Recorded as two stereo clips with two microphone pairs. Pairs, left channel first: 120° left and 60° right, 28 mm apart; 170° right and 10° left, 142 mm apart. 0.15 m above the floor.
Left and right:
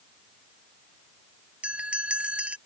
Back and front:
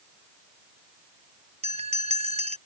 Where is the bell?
25° right.